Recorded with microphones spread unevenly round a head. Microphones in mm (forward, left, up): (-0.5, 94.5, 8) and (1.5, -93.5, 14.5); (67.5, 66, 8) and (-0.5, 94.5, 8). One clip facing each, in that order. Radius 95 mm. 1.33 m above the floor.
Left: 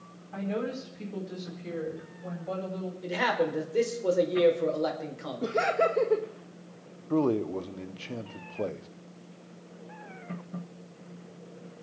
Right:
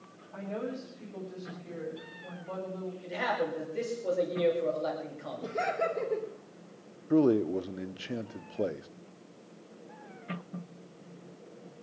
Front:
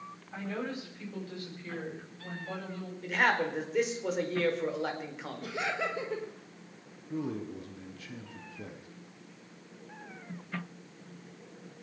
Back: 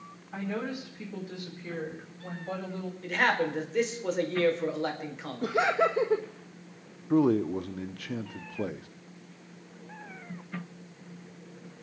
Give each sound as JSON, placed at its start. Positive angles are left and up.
{"t": 0.3, "sound": "a woman speaking", "azimuth_deg": 75, "distance_m": 7.0}
{"t": 3.0, "sound": "a man speaking", "azimuth_deg": 65, "distance_m": 4.5}
{"t": 5.4, "sound": "laughter", "azimuth_deg": 110, "distance_m": 1.3}
{"t": 7.1, "sound": "a man speaking", "azimuth_deg": -165, "distance_m": 0.7}